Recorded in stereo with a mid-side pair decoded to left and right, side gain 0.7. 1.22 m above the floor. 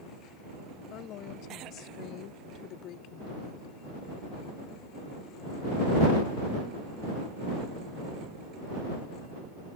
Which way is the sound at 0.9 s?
55° left.